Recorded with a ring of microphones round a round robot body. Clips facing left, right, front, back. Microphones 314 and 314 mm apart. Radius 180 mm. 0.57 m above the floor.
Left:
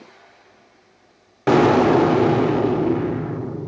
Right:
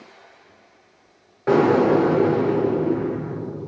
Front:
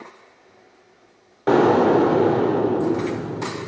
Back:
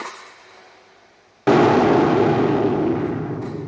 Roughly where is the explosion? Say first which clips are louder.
Left 1 dB, back 1 dB; behind left.